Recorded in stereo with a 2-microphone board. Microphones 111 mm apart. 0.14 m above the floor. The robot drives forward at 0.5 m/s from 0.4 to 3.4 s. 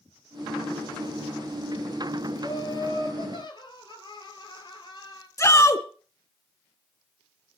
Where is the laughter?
35° left (ahead or behind), 3 m; by 5.3 s 40° left (ahead or behind), 2.5 m.